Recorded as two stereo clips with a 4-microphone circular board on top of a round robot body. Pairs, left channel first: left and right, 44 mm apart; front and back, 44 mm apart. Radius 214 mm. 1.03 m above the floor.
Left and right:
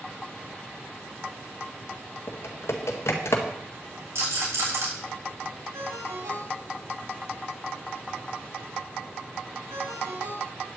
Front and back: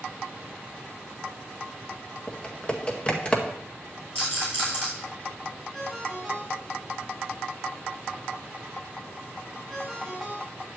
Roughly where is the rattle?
Ahead right.